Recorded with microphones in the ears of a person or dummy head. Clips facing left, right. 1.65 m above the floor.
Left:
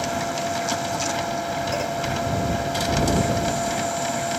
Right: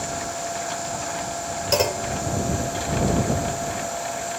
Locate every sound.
0.0 s a machine running: 70° left (ahead or behind)
1.7 s a clunk: 80° right